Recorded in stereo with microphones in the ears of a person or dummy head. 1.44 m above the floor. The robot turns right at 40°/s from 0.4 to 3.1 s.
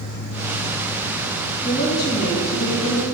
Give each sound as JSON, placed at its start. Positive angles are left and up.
{"t": 1.6, "sound": "a woman speaking", "azimuth_deg": 45, "distance_m": 1.9}